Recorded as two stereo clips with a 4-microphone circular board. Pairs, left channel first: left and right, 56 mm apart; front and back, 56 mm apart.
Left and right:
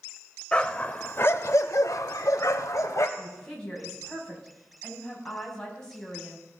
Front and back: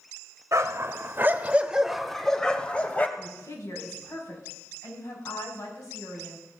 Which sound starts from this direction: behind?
A dog barking, at 0.5 s.